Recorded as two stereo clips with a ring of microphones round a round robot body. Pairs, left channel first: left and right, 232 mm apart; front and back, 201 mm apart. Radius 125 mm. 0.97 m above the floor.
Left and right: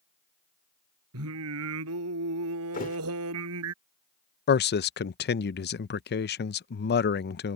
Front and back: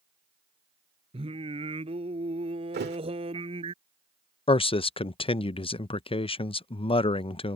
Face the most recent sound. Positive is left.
turn(degrees=60)